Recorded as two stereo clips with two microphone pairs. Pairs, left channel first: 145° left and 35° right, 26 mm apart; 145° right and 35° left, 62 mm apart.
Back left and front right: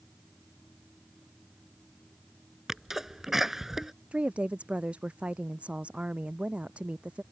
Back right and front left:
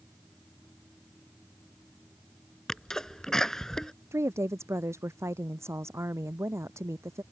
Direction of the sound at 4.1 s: Straight ahead.